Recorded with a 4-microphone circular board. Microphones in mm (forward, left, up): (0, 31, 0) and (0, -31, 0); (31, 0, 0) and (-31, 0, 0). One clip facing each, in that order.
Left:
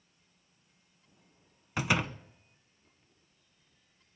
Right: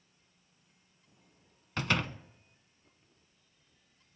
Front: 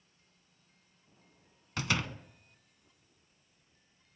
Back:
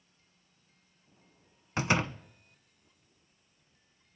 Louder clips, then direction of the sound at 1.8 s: Left 2 dB, back 5 dB; 155° left.